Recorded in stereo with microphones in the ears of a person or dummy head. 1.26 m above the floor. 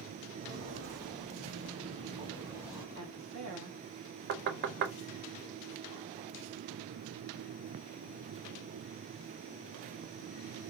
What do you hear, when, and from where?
0.4 s footsteps: 50° right (ahead or behind), 2 m; by 2.9 s 15° right (ahead or behind), 1.6 m
3.0 s a woman speaking: 70° right (ahead or behind), 1.4 m
4.3 s knocking: 60° right (ahead or behind), 0.6 m